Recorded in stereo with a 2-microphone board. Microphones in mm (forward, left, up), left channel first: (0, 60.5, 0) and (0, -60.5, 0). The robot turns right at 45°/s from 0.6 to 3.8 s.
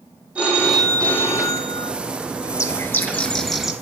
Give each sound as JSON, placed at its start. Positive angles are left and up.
{"t": 0.3, "sound": "a phone ringing", "azimuth_deg": -10, "distance_m": 2.5}
{"t": 2.5, "sound": "a bird", "azimuth_deg": 130, "distance_m": 0.8}